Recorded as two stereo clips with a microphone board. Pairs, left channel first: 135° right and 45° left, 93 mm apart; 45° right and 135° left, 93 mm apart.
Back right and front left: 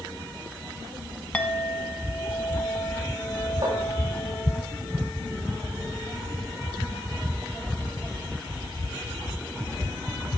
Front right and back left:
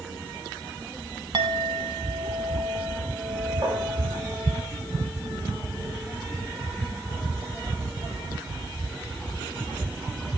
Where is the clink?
150° left, 1.1 m.